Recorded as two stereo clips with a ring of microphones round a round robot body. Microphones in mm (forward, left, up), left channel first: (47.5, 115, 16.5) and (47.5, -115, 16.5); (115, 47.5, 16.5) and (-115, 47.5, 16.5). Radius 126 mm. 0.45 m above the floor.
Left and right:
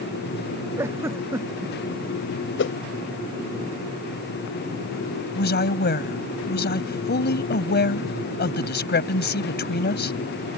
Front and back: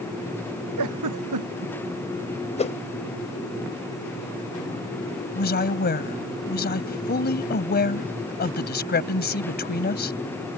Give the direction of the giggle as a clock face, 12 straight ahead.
6 o'clock.